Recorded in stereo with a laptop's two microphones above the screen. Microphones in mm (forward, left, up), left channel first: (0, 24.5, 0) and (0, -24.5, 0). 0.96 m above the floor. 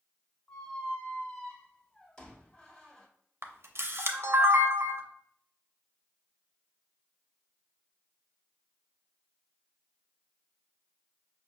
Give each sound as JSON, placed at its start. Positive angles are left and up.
{"t": 0.5, "sound": "a squeak", "side_deg": 15, "distance_m": 1.2}
{"t": 3.4, "sound": "a camera shutter", "side_deg": -55, "distance_m": 0.5}